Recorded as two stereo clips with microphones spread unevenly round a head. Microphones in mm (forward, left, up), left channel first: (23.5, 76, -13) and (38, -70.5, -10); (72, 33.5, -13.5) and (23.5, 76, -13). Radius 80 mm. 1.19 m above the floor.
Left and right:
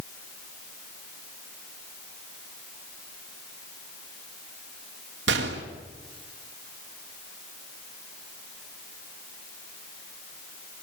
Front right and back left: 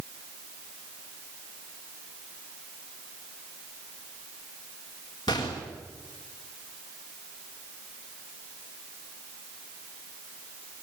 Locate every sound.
5.3 s a gunshot: 100° right, 3.5 m